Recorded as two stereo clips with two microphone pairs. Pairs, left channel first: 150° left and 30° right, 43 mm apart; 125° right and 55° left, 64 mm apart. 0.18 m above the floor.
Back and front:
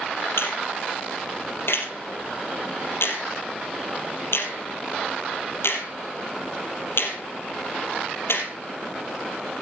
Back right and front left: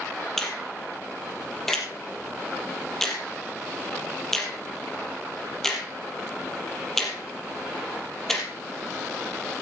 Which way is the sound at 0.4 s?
150° left.